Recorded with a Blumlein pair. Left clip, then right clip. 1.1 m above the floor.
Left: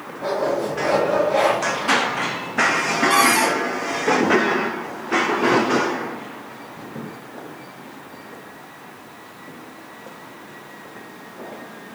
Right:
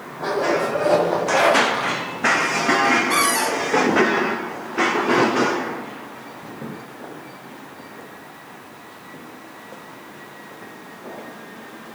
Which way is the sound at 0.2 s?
60° right.